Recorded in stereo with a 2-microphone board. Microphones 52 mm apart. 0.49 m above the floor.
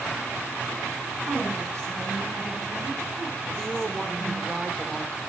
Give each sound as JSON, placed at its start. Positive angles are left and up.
{"t": 1.2, "sound": "a woman speaking", "side_deg": -50, "distance_m": 4.0}
{"t": 3.5, "sound": "a woman speaking", "side_deg": -15, "distance_m": 1.1}